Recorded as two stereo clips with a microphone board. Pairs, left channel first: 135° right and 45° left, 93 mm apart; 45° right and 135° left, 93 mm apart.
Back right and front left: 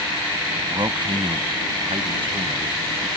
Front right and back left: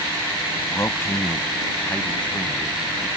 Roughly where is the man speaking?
Ahead.